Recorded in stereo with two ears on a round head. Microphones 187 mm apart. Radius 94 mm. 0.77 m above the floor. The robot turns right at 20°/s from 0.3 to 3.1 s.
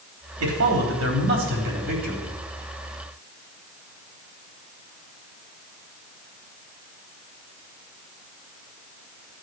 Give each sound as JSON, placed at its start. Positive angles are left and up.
{"t": 0.4, "sound": "a man speaking", "azimuth_deg": -75, "distance_m": 3.5}